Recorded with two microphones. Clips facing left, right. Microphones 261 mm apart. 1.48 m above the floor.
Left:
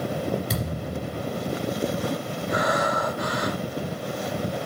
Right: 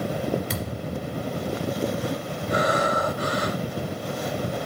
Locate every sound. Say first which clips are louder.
0.5 s a thud: even; 45° left (ahead or behind), 2.0 m
2.5 s breathing: right 2 dB; 30° right (ahead or behind), 1.5 m